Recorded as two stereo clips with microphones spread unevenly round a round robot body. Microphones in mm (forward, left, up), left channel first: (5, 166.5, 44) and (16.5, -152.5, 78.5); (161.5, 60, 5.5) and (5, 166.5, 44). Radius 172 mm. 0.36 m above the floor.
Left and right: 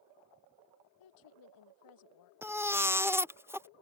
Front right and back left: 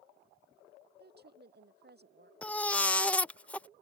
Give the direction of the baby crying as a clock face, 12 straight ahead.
12 o'clock.